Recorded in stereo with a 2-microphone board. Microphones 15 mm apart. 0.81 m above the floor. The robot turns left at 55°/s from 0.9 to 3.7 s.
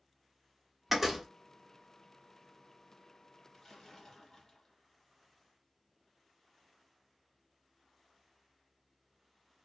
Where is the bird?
No bird in this recording.